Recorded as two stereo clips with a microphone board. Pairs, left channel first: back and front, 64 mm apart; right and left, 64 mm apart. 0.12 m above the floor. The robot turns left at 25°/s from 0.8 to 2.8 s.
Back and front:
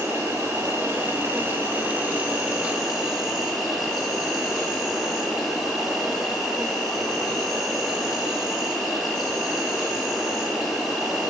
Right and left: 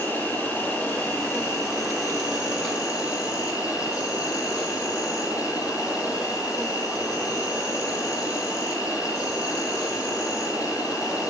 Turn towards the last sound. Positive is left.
turn(degrees=-90)